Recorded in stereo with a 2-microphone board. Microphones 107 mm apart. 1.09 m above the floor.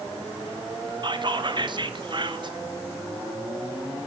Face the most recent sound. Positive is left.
turn(degrees=-45)  # may be behind; listen again after turning